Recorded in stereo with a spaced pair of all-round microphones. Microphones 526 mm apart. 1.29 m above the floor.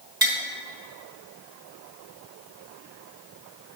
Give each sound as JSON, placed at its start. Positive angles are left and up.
{"t": 0.2, "sound": "tapping", "side_deg": -40, "distance_m": 1.4}